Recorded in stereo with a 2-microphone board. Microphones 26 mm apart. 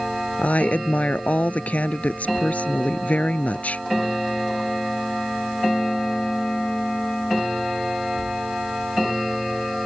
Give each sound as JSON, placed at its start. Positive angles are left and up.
{"t": 0.4, "sound": "a woman speaking", "side_deg": 70}